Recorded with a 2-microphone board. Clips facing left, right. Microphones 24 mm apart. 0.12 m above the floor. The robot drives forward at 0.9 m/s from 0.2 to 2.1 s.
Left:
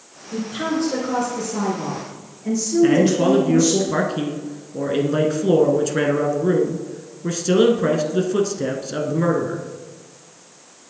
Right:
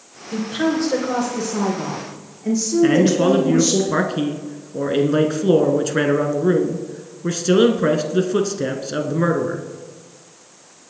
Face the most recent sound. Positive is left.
turn(degrees=-15)  # may be behind; listen again after turning